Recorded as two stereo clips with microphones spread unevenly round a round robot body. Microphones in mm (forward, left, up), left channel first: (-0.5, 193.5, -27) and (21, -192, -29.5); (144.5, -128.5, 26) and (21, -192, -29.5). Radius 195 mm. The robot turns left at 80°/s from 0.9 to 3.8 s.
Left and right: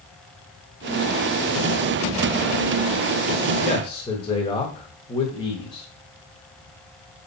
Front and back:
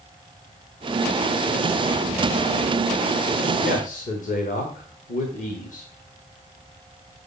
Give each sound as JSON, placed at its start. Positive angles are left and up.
{"t": 3.6, "sound": "a man speaking", "azimuth_deg": 40, "distance_m": 1.4}